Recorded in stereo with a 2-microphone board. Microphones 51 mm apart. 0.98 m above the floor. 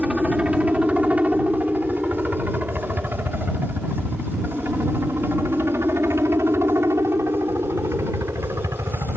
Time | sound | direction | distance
0.0 | a helicopter | 20° right (ahead or behind) | ?